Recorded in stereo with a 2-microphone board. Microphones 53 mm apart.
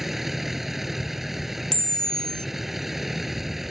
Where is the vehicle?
5° right (ahead or behind).